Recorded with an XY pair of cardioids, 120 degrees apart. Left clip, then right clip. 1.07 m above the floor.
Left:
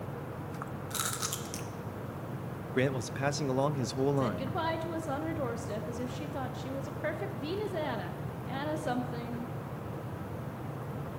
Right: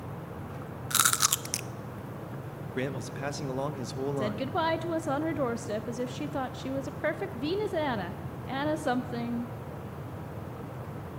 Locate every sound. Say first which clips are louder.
0.9 s chewing: right 11 dB; 60° right, 0.5 m
2.8 s a man speaking: left 3 dB; 20° left, 0.6 m
4.2 s a woman speaking: right 3 dB; 35° right, 0.5 m